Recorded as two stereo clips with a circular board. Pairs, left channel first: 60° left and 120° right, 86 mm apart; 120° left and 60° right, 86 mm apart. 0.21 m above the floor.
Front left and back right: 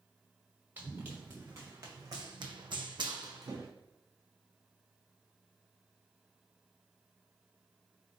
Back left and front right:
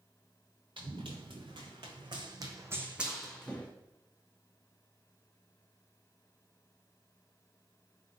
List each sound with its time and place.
0.8 s running footsteps: 55° right, 1.2 m; by 3.7 s 170° right, 0.7 m